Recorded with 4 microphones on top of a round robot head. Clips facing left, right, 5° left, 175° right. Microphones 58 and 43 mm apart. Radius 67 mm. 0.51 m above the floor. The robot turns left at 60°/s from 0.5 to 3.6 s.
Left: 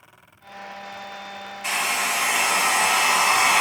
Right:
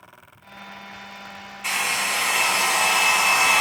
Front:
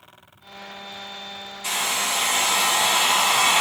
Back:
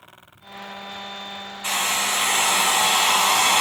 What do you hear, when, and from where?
1.6 s a hair dryer: 175° right, 1.3 m; by 3.6 s 65° left, 1.3 m